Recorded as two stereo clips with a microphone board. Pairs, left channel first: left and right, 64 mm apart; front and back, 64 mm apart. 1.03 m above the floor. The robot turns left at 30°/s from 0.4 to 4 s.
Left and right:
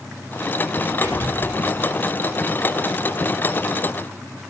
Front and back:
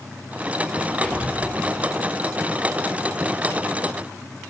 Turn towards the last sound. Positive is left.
turn(degrees=-160)